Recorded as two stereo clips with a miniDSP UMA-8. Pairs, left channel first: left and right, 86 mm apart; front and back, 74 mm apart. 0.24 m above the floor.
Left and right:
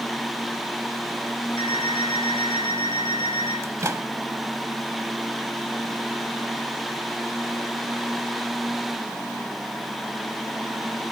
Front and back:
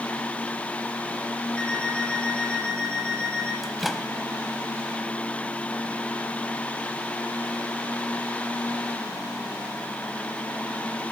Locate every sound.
1.6 s an alarm clock: 75° left, 8 m
3.6 s a microwave: 90° right, 0.9 m